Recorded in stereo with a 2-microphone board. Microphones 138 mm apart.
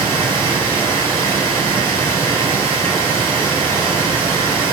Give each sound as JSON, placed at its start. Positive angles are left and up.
{"t": 0.0, "sound": "running water", "side_deg": -40, "distance_m": 3.5}